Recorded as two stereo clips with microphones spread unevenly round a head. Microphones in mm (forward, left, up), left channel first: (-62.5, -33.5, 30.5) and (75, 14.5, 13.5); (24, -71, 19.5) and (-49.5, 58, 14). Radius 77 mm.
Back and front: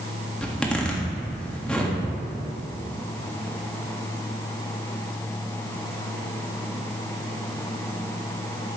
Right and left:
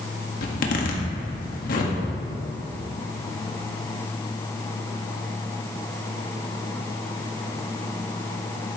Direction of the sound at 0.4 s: 80° right.